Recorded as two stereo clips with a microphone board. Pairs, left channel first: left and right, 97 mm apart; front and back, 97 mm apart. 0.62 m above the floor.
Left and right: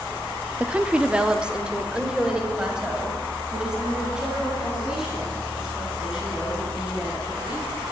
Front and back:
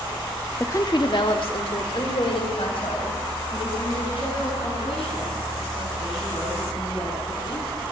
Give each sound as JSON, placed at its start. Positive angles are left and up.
{"t": 0.6, "sound": "a woman speaking", "azimuth_deg": -30, "distance_m": 0.5}